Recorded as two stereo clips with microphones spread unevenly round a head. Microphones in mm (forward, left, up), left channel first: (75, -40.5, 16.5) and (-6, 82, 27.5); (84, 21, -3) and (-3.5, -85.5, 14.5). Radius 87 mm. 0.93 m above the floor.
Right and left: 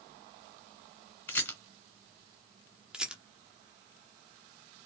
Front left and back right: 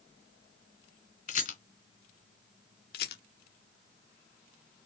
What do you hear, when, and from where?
1.3 s a rattle: 25° left, 1.4 m
2.9 s a rattle: 40° left, 0.9 m